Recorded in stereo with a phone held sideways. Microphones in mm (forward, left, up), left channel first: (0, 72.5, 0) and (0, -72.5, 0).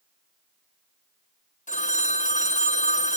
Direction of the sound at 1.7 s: 60° left (ahead or behind).